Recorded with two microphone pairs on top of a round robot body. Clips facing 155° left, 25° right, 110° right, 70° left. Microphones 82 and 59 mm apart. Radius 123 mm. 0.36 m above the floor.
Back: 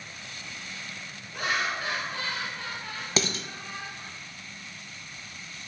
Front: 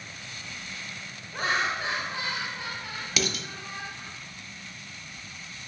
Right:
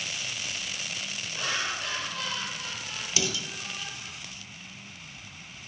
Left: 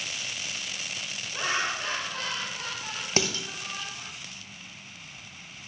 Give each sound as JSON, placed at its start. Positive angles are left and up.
{"t": 1.3, "sound": "laughter", "azimuth_deg": 15, "distance_m": 1.2}
{"t": 3.2, "sound": "dishes clattering", "azimuth_deg": 110, "distance_m": 0.7}